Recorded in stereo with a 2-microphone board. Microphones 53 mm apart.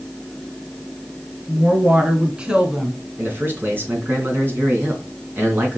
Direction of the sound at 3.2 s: 40° right (ahead or behind).